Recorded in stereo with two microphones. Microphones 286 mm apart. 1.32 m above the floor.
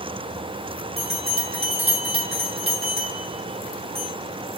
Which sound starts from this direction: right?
A bell, at 1.0 s.